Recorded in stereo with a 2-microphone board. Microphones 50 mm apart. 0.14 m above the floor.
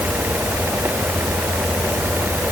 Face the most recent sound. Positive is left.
No sound to turn to.